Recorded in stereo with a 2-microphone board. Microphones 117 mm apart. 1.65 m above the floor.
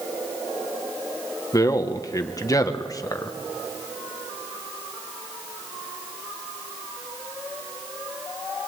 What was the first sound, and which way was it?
A man speaking, 30° left (ahead or behind).